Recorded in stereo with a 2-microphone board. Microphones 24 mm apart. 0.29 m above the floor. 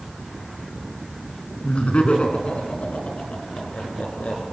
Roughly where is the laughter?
Left.